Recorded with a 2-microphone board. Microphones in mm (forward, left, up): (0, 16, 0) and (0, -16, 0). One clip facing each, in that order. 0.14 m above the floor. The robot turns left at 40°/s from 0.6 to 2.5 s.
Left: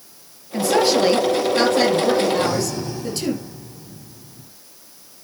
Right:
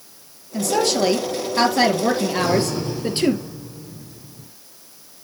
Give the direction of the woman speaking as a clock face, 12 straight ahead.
11 o'clock.